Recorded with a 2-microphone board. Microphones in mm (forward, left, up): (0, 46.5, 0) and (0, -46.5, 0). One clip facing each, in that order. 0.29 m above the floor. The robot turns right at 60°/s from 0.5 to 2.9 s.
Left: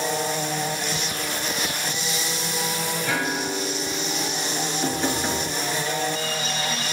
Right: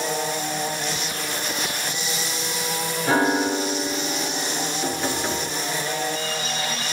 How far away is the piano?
About 0.6 m.